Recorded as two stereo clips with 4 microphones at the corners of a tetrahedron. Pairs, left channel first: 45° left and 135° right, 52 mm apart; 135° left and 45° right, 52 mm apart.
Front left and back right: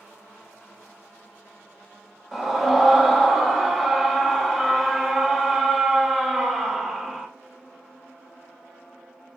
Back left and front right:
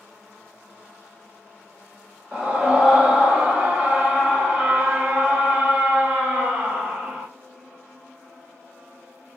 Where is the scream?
60° right, 0.8 m.